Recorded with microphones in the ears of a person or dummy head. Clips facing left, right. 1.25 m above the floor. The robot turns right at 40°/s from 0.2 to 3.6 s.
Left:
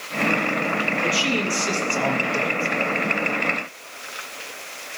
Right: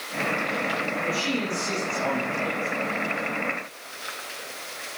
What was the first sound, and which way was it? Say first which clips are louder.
A man speaking: left 3 dB; 45° left.